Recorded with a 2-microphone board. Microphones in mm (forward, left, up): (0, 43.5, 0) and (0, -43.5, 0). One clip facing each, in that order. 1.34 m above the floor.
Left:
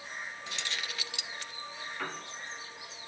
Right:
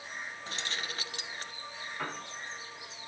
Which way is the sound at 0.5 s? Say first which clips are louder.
Right 2 dB; 40° right (ahead or behind).